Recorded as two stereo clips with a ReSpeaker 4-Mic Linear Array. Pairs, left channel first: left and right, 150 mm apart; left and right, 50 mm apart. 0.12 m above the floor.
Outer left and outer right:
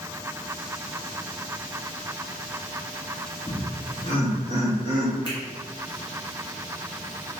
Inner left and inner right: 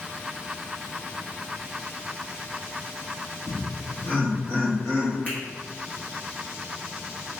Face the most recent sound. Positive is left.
turn(degrees=30)  # may be behind; listen again after turning